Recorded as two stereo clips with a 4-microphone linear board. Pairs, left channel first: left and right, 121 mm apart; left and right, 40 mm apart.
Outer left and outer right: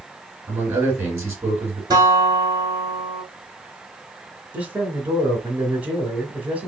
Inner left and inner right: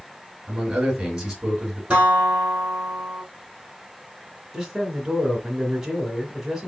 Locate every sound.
0.5 s a man speaking: 20° right (ahead or behind), 3 m
1.9 s a guitar: 35° right (ahead or behind), 2 m
4.5 s a man speaking: 15° right (ahead or behind), 1.3 m